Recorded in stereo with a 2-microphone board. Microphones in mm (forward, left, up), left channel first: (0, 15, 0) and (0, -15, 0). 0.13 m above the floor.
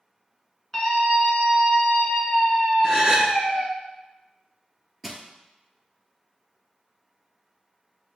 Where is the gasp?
25° right (ahead or behind), 0.7 m.